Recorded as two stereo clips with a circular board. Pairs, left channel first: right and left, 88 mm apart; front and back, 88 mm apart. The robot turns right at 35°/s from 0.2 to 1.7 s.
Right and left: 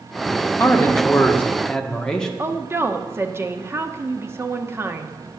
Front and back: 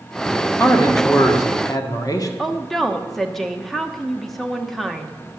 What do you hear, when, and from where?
0.6 s a man speaking: 50° right, 1.4 m; by 2.3 s 10° right, 1.4 m
2.4 s a woman speaking: 85° left, 1.0 m